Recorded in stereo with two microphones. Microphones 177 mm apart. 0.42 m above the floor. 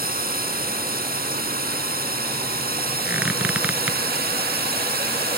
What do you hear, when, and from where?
0.0 s a drone: 55° right (ahead or behind); by 5.4 s 60° right (ahead or behind)
3.0 s a squeak: 10° right (ahead or behind)